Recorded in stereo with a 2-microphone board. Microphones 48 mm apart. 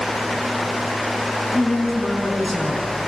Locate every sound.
1.5 s a man speaking: centre (ahead or behind), 5.5 m